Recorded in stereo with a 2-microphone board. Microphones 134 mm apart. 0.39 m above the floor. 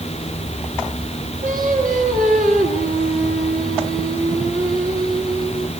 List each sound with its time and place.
1.4 s singing: 75° right (ahead or behind), 4.5 m